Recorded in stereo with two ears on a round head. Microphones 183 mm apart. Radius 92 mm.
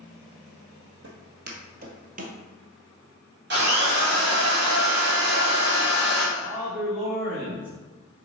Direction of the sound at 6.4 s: 10° right (ahead or behind).